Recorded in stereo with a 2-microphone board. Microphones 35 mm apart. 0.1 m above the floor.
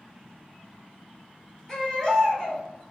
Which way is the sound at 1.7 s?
20° left (ahead or behind).